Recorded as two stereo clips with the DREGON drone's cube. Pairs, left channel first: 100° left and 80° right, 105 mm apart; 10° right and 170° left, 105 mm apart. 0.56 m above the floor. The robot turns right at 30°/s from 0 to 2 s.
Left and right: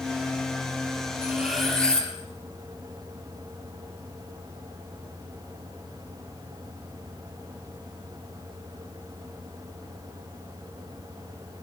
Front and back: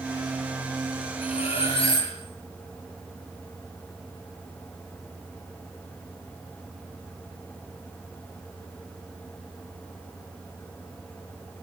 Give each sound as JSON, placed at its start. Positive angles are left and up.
{"t": 1.2, "sound": "cutlery clinking", "azimuth_deg": 0, "distance_m": 6.5}